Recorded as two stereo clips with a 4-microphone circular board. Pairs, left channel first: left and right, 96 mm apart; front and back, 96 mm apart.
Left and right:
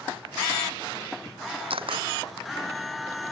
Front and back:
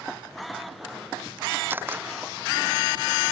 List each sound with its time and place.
1.7 s a camera shutter: 110° right